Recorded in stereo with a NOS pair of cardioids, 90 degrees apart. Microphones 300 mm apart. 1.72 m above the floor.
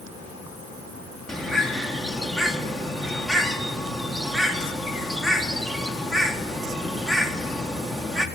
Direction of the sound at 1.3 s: Straight ahead.